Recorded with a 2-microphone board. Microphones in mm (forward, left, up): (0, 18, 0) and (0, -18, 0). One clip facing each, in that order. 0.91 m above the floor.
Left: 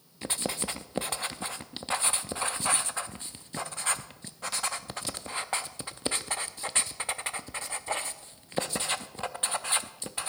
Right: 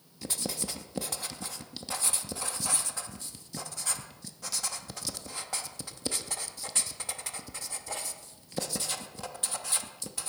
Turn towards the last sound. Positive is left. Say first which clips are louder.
# left 3 dB
turn(degrees=40)  # may be behind; listen again after turning